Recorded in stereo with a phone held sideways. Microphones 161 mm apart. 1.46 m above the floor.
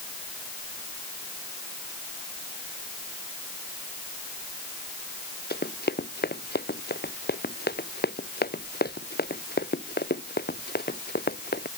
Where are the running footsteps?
85° left.